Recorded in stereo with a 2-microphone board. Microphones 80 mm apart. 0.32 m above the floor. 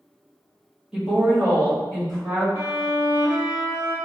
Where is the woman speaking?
10° right (ahead or behind), 1.0 m; by 2.5 s 55° right (ahead or behind), 1.7 m.